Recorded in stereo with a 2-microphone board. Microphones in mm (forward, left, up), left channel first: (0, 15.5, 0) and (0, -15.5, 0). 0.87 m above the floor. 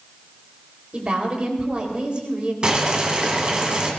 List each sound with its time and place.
0.9 s a woman speaking: 35° right (ahead or behind), 4 m
2.6 s boiling: 30° right (ahead or behind), 2.5 m